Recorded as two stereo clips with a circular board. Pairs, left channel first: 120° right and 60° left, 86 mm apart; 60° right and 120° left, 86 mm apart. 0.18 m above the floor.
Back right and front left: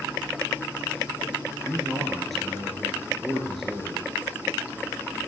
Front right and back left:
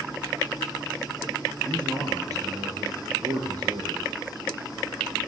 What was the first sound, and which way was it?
A man speaking, 150° left.